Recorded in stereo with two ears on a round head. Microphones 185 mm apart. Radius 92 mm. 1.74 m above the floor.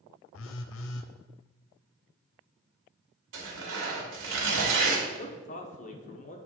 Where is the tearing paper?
65° right (ahead or behind), 2.5 m.